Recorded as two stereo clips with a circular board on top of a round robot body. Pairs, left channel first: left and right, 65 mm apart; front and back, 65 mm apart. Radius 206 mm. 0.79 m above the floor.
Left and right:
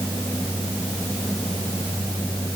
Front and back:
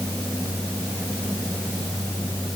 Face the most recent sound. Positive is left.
No sound to turn to.